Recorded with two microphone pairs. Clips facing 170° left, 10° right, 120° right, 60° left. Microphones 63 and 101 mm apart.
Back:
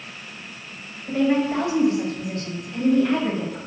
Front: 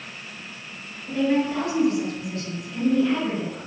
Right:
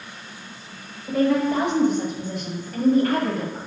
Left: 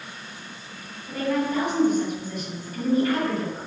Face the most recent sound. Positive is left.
turn(degrees=-150)